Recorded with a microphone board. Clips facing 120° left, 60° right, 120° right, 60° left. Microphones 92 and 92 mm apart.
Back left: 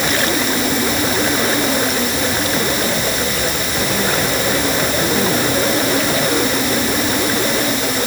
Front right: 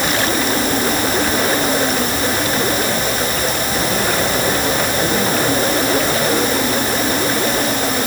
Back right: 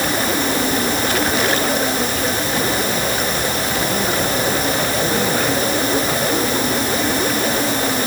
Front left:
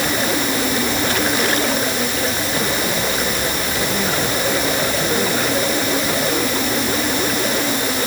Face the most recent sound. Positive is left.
No sound to turn to.